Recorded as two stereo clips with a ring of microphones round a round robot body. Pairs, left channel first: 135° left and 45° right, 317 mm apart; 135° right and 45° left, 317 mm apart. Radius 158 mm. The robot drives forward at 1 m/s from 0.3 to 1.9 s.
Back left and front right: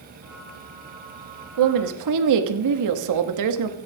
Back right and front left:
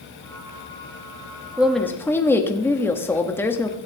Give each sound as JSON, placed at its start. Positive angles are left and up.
{"t": 1.6, "sound": "a woman speaking", "azimuth_deg": -40, "distance_m": 1.3}